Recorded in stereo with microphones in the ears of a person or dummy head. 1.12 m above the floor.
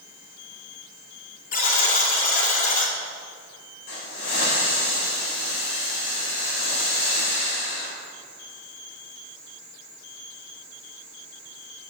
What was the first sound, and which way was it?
A buzzer, 45° left (ahead or behind).